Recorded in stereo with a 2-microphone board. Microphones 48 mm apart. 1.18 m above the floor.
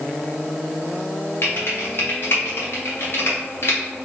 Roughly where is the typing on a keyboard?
Left.